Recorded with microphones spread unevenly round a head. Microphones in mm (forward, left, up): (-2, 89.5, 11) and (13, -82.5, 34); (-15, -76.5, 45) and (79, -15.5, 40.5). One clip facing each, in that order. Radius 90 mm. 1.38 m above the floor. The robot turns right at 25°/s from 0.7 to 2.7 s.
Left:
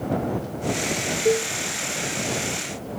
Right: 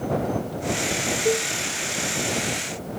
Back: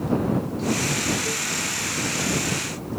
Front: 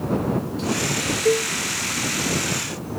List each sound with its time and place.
1.2 s a cowbell: 15° left; by 1.5 s 20° left